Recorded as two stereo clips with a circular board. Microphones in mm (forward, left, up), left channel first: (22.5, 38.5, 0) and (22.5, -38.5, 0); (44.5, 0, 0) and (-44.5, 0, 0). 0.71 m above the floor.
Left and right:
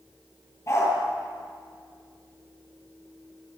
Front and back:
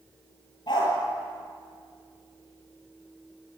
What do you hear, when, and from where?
0.7 s a dog barking: 35° left, 7.5 m